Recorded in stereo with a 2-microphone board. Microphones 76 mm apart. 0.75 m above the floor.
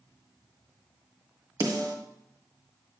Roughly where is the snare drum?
Right.